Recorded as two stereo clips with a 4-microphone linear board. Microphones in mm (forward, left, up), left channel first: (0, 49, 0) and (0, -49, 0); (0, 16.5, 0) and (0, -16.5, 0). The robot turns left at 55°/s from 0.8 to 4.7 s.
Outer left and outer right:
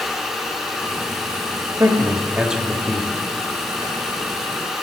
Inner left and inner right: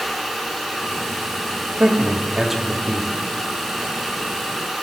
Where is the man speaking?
125° right, 1.0 m; by 3.2 s 160° left, 1.0 m.